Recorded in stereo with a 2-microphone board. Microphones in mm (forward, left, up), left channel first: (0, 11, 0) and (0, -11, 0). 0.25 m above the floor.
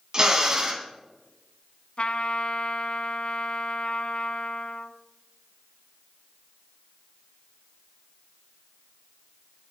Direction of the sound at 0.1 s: 35° right (ahead or behind).